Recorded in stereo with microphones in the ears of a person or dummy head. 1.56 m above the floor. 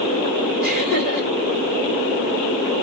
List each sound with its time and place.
0.6 s laughter: 40° right (ahead or behind), 2 m